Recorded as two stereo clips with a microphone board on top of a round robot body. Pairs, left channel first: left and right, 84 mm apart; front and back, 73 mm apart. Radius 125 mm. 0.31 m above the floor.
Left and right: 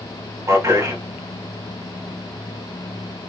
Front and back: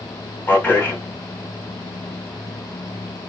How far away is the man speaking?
About 1.2 m.